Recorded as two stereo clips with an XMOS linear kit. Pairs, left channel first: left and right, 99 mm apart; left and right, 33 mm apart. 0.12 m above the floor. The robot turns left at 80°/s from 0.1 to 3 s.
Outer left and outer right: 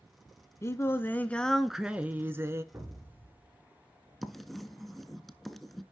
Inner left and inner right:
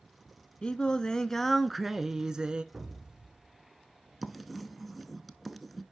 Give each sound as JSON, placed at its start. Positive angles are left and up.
{"t": 0.6, "sound": "singing", "side_deg": 30, "distance_m": 0.5}
{"t": 2.7, "sound": "an explosion", "side_deg": -20, "distance_m": 1.2}
{"t": 4.2, "sound": "writing", "side_deg": 0, "distance_m": 0.6}